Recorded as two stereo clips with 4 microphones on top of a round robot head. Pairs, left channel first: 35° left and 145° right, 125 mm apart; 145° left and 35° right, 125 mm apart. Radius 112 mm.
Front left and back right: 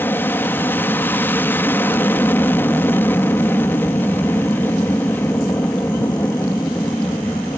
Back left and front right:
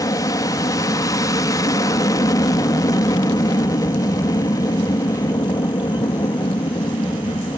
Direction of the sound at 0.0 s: 100° left.